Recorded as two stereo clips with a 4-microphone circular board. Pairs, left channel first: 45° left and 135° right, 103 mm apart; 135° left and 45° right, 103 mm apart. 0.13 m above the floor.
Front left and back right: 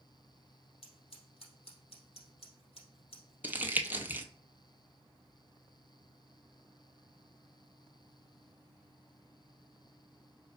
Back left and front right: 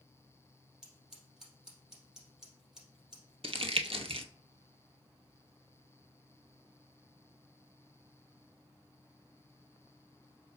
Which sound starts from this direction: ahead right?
Crumpling, at 3.4 s.